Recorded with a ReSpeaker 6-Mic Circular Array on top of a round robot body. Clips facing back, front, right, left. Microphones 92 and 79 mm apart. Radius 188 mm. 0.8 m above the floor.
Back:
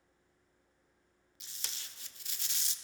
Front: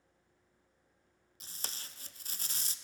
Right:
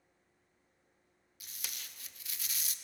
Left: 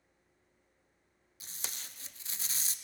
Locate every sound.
1.4 s tape being pulled: 40° left, 0.7 m